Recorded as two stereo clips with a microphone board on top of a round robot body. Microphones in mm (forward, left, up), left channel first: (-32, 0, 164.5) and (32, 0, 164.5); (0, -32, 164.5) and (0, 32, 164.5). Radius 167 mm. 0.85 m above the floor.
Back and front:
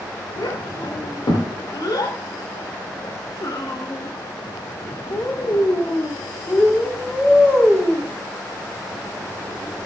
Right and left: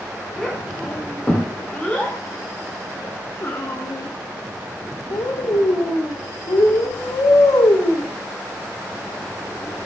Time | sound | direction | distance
0.4 | a child speaking | 175° right | 4 m